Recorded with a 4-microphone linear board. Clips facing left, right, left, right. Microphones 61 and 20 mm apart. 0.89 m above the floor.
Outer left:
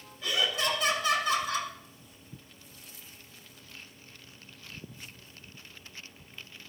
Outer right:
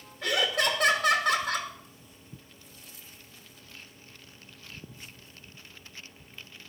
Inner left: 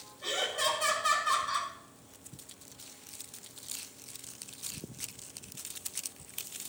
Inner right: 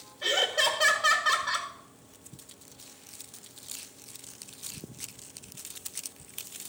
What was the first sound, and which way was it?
Laughter, 60° right (ahead or behind).